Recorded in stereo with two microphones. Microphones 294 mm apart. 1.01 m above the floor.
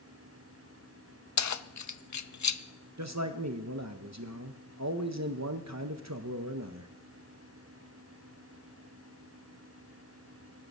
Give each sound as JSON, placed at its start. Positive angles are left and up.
{"t": 1.4, "sound": "keys jangling", "side_deg": 70, "distance_m": 0.5}
{"t": 3.0, "sound": "a man speaking", "side_deg": -65, "distance_m": 0.8}